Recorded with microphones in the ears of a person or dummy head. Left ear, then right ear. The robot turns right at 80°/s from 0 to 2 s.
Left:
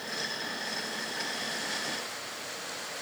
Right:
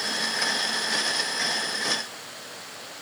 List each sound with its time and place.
Only background noise.